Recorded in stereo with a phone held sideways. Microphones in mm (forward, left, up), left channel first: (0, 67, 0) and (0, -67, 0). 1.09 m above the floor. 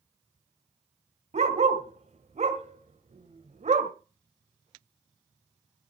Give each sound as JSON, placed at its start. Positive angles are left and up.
{"t": 1.3, "sound": "a dog barking", "side_deg": -55, "distance_m": 1.8}